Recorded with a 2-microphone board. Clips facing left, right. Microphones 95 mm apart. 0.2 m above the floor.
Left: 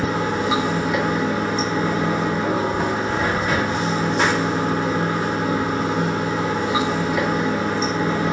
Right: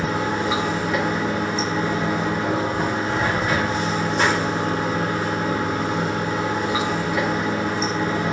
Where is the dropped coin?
No dropped coin in this recording.